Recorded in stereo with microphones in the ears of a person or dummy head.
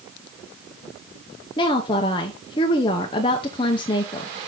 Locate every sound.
1.6 s a woman speaking: 25° left (ahead or behind), 0.6 m